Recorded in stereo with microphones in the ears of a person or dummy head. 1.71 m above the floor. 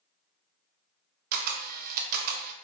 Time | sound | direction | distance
1.3 | a camera shutter | 50° right (ahead or behind) | 0.6 m